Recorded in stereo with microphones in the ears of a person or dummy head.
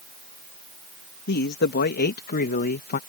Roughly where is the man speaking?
Left.